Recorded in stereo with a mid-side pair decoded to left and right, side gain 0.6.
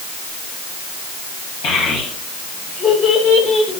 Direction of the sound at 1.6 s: 60° left.